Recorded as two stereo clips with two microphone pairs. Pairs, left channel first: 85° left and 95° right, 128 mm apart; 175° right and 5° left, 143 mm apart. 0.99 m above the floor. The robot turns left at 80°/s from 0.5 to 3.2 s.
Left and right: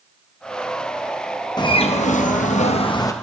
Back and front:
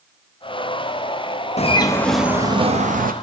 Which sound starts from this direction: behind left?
A bird, at 1.6 s.